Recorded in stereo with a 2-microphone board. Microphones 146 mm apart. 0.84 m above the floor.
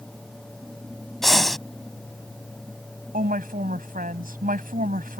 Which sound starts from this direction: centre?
Breathing, at 1.2 s.